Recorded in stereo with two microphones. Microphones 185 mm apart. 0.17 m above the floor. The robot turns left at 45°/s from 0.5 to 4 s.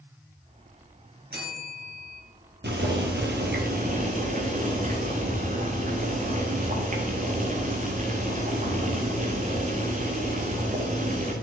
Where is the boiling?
75° right, 2 m; by 11.3 s 135° right, 2 m.